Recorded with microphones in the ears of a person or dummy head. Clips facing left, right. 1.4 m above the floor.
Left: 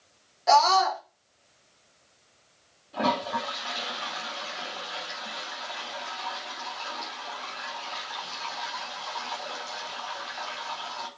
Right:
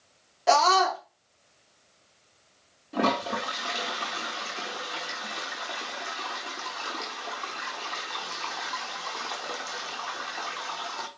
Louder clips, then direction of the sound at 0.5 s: Left 1 dB; 50° right (ahead or behind).